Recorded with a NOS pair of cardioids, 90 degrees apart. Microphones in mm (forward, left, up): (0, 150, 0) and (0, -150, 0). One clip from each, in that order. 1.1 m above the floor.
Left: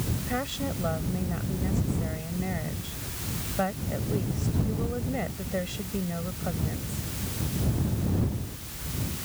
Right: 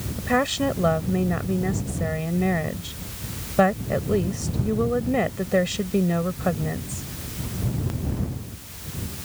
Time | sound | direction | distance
0.2 | a woman speaking | 70° right | ?